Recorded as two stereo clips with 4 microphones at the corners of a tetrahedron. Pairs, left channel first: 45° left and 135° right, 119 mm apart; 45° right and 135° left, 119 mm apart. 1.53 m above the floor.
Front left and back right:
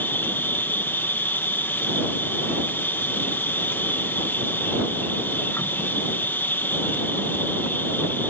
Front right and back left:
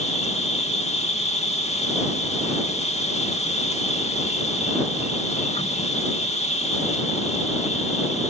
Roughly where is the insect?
Ahead right.